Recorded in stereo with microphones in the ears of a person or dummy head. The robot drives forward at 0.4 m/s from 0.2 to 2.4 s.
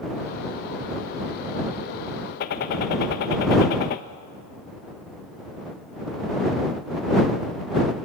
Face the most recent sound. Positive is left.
turn(degrees=50)  # may be behind; listen again after turning